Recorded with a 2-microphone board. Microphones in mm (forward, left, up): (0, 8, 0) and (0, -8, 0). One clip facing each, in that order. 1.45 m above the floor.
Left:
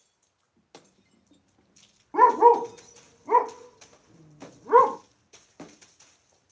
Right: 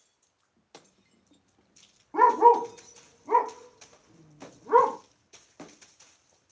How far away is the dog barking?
About 0.9 m.